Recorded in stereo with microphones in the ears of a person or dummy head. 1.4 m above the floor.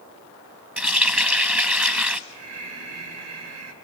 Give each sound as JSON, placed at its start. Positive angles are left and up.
{"t": 0.8, "sound": "a running tap", "side_deg": -5, "distance_m": 1.2}
{"t": 2.3, "sound": "breathing", "side_deg": -70, "distance_m": 4.0}